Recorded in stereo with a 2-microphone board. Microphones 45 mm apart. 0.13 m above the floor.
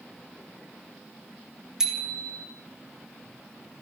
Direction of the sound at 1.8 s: 15° right (ahead or behind).